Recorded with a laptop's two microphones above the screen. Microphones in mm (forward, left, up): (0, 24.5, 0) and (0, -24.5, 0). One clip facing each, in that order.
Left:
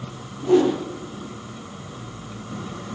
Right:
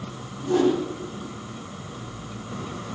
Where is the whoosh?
85° left, 9.5 m.